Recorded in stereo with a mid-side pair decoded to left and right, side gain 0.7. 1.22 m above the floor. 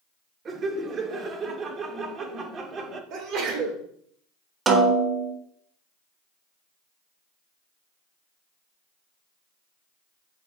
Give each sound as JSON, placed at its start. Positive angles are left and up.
{"t": 0.5, "sound": "laughter", "azimuth_deg": -40, "distance_m": 1.3}
{"t": 3.1, "sound": "a sneeze", "azimuth_deg": -55, "distance_m": 3.0}
{"t": 4.7, "sound": "a snare drum", "azimuth_deg": -25, "distance_m": 1.2}